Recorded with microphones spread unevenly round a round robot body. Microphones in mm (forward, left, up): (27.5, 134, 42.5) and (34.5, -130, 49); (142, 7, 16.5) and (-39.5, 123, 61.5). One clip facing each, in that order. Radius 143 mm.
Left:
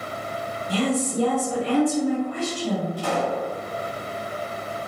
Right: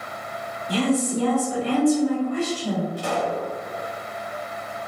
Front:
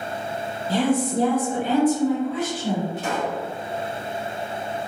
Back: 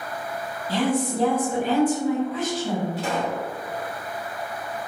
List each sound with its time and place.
0.7 s a woman speaking: 90° right, 1.2 m; by 2.9 s 30° right, 1.6 m
3.0 s a pop: 30° right, 1.7 m